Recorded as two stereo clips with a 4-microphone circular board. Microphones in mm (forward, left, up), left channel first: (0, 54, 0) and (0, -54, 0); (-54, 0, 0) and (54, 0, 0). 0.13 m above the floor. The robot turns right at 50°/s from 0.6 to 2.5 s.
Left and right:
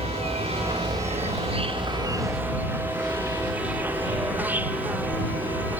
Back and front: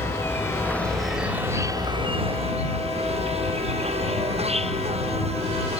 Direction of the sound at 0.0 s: 110° right.